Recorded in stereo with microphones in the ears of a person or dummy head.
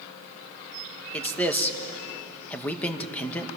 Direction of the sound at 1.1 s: 15° left (ahead or behind).